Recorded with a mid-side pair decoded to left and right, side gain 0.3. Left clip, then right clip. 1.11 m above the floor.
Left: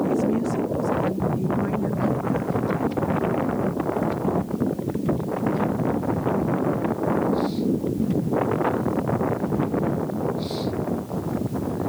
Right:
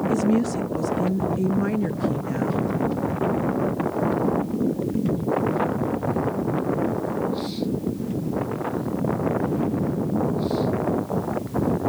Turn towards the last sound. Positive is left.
turn(degrees=-70)